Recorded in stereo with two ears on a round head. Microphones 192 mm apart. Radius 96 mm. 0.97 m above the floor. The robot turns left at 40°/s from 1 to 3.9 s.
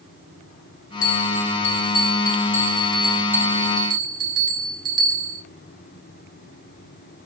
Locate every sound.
1.0 s a bell: 75° left, 0.9 m; by 5.4 s 40° right, 0.9 m